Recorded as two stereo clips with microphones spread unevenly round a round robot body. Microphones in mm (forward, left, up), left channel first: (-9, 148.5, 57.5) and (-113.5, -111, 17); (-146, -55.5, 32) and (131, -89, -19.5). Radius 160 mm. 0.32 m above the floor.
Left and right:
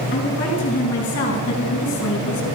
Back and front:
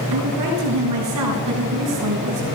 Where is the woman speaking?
Straight ahead, 5 m; by 2.5 s 25° left, 3.5 m.